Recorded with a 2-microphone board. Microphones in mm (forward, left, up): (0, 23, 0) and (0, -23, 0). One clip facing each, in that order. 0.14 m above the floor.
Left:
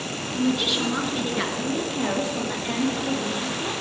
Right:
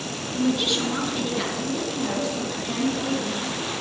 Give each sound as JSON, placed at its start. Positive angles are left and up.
{"t": 0.3, "sound": "a woman speaking", "side_deg": -5, "distance_m": 1.9}